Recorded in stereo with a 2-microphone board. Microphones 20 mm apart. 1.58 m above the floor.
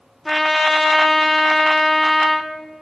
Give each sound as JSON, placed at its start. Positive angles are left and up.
{"t": 0.2, "sound": "a trumpet", "side_deg": 5, "distance_m": 0.7}